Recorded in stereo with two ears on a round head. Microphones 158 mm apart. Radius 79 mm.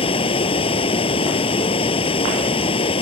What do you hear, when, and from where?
0.0 s running water: 35° left (ahead or behind)